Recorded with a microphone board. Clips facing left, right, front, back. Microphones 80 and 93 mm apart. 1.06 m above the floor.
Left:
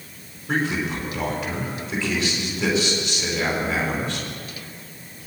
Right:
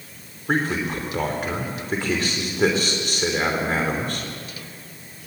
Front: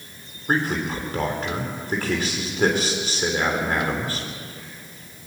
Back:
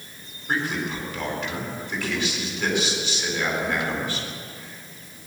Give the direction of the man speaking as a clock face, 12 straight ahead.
2 o'clock.